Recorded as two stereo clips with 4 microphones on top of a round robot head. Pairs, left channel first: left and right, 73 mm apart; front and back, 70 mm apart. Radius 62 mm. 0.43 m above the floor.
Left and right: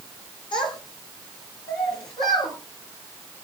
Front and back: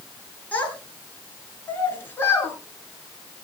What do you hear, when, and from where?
0.5 s a child speaking: 70° left, 5 m; by 2.5 s 55° left, 4.5 m